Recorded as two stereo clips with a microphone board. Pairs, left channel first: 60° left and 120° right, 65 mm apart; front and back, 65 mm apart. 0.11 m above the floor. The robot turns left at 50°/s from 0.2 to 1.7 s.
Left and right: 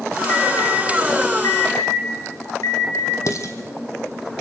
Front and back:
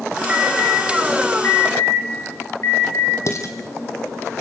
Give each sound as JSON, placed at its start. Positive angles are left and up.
{"t": 0.3, "sound": "an alarm", "azimuth_deg": 110, "distance_m": 5.0}
{"t": 3.3, "sound": "dishes clattering", "azimuth_deg": 30, "distance_m": 3.0}